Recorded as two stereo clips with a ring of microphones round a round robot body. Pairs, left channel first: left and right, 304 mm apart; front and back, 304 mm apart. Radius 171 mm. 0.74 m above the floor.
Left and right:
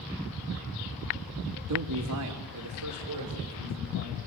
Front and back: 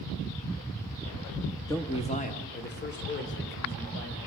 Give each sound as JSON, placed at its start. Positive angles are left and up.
{"t": 1.7, "sound": "a man speaking", "azimuth_deg": -80, "distance_m": 1.7}